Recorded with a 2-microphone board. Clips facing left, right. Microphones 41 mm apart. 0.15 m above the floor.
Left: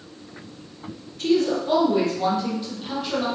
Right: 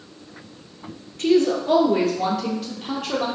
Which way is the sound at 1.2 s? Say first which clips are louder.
Right 3 dB; 60° right (ahead or behind).